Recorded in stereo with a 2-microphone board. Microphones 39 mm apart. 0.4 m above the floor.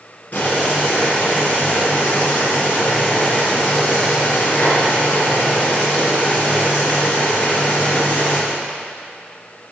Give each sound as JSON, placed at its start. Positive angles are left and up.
{"t": 0.3, "sound": "boiling", "side_deg": 40, "distance_m": 3.5}